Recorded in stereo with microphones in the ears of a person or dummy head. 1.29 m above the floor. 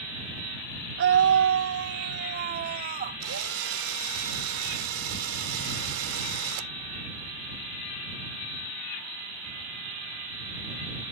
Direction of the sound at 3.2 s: 85° right.